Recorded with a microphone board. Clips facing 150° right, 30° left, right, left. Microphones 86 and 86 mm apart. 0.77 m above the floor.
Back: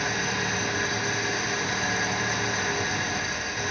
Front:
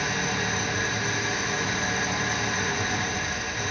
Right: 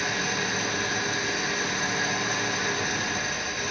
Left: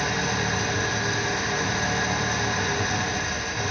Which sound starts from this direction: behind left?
An engine running, at 0.0 s.